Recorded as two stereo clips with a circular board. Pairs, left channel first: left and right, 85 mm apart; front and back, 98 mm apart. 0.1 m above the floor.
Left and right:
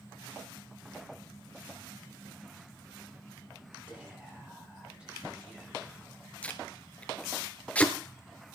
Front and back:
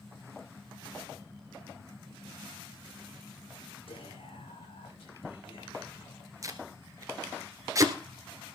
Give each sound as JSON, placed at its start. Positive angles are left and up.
{"t": 3.9, "sound": "whispering", "azimuth_deg": -10, "distance_m": 8.0}
{"t": 6.4, "sound": "tape being pulled", "azimuth_deg": 155, "distance_m": 1.5}